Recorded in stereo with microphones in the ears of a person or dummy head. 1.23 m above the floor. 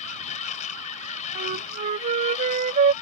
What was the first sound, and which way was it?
A machine running, 40° left (ahead or behind).